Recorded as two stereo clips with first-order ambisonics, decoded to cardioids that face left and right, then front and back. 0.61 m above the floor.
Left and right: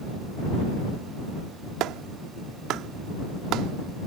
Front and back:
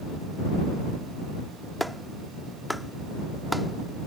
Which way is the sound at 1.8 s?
90° right.